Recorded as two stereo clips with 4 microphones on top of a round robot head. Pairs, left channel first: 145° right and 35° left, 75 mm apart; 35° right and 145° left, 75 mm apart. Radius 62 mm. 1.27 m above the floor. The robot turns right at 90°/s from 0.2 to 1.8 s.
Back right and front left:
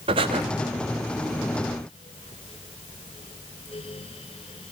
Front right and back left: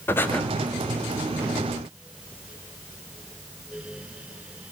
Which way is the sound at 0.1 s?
30° left.